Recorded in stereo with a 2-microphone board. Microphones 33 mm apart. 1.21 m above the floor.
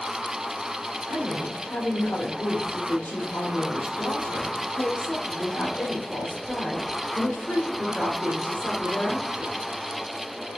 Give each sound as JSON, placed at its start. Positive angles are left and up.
{"t": 1.1, "sound": "a woman speaking", "side_deg": 65, "distance_m": 0.9}